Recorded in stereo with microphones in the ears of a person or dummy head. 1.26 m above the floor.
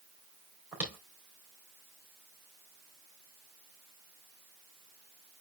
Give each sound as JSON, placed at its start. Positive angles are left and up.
{"t": 0.7, "sound": "footsteps", "side_deg": -10, "distance_m": 3.5}